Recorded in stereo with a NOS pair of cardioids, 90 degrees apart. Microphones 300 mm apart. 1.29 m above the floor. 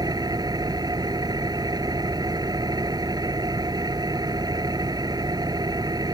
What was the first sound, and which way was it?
An engine running, 15° right.